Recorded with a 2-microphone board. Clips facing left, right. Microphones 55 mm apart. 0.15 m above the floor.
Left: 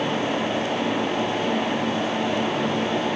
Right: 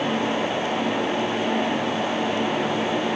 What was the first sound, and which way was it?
Only background noise.